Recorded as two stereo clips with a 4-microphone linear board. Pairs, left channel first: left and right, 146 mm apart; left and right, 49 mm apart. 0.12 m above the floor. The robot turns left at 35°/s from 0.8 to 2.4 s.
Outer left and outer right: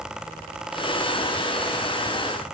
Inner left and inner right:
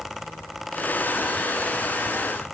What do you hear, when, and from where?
Only background noise.